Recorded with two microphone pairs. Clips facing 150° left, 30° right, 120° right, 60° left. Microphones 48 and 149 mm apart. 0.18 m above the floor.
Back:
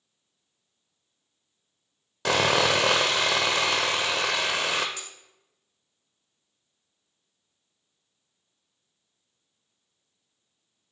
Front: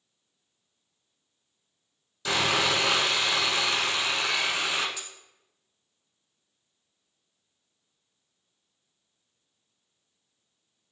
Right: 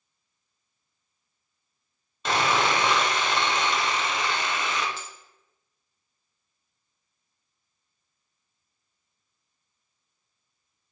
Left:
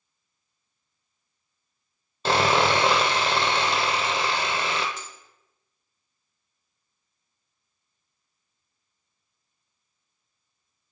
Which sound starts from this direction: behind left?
Sawing, at 2.2 s.